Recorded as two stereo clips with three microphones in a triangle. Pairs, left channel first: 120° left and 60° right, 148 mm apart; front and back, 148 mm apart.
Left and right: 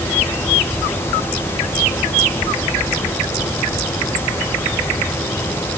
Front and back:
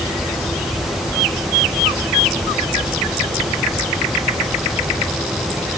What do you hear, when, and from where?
Only background noise.